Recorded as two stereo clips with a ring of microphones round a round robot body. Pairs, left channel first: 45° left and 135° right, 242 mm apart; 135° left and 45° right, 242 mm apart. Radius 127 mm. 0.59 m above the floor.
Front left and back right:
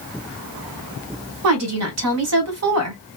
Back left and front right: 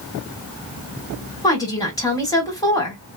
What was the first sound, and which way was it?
A woman speaking, 150° right.